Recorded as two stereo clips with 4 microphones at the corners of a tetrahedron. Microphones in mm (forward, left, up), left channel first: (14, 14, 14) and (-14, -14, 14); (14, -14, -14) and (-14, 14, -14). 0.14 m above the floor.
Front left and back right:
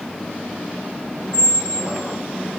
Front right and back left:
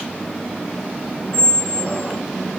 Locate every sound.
1.3 s a squeak: 80° right, 0.7 m